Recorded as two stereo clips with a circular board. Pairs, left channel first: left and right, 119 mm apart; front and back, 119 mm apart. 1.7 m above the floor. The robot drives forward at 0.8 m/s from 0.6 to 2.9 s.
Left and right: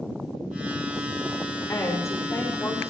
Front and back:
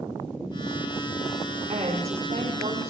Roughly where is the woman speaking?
Behind left.